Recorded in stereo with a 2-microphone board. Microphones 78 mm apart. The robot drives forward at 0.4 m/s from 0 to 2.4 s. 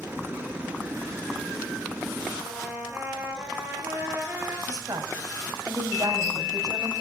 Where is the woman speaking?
55° right (ahead or behind), 2.5 m.